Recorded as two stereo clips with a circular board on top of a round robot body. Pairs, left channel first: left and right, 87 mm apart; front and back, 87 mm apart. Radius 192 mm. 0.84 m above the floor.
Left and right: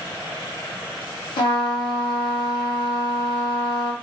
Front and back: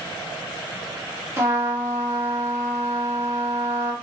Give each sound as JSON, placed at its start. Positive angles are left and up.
{"t": 1.4, "sound": "a trumpet", "azimuth_deg": 120, "distance_m": 0.7}